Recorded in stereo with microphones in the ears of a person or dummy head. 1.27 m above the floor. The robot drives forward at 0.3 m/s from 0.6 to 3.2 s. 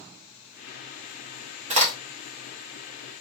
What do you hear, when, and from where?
1.7 s a crack: 40° right (ahead or behind), 0.7 m